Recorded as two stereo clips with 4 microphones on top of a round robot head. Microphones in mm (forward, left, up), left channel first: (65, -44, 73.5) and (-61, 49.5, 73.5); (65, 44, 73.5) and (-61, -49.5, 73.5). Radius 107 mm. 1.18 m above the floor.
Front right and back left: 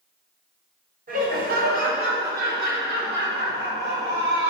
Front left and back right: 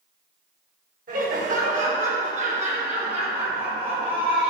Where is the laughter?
Straight behind, 4 m; by 4.5 s 160° left, 5 m.